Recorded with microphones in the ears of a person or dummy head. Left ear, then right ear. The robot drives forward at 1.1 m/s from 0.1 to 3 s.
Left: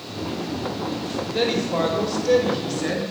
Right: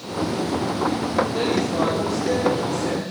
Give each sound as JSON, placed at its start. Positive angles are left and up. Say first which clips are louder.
{"t": 1.3, "sound": "a man speaking", "louder": "even", "side_deg": 35, "distance_m": 6.0}